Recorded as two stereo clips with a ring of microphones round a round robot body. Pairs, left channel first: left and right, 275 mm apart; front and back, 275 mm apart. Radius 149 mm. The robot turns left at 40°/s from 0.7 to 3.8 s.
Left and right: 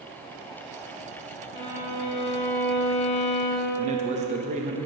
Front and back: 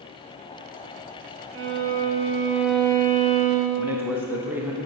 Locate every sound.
1.5 s a violin: 140° left, 1.2 m; by 3.8 s 50° left, 1.2 m
3.8 s a man speaking: 105° right, 0.8 m; by 4.8 s 110° right, 0.8 m